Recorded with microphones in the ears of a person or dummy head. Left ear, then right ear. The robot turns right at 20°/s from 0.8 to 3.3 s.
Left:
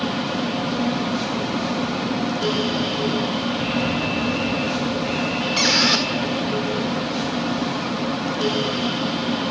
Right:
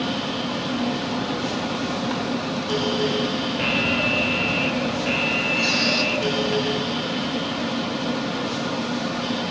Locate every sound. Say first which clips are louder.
3.6 s an alarm: right 2 dB; 35° right (ahead or behind), 1.4 m
5.6 s a squeak: left 7 dB; 35° left (ahead or behind), 1.6 m